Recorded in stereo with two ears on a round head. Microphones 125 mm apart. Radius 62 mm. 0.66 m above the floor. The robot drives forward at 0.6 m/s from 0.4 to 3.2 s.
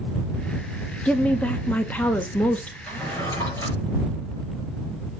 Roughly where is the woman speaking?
Centre.